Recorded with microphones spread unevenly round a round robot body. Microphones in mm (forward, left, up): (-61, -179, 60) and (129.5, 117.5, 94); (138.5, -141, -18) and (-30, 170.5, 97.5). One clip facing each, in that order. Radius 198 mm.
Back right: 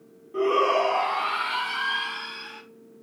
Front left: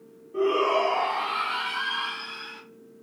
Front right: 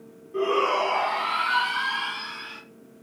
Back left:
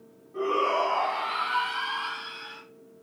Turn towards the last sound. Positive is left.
turn(degrees=-45)